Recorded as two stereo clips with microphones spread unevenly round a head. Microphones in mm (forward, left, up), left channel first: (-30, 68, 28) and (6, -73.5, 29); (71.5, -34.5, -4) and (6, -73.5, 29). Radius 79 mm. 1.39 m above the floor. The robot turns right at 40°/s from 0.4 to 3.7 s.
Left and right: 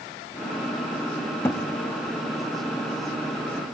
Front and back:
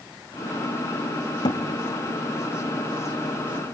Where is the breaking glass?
I don't hear breaking glass.